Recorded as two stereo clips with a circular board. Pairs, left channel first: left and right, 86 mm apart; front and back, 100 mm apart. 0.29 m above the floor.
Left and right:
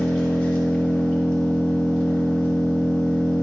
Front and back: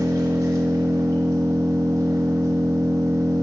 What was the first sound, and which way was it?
An engine running, 155° left.